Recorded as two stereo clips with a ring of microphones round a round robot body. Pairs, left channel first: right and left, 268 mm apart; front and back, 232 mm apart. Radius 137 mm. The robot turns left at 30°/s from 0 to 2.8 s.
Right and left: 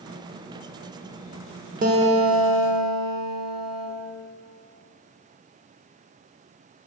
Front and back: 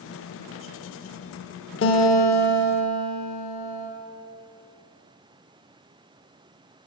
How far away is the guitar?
About 0.7 m.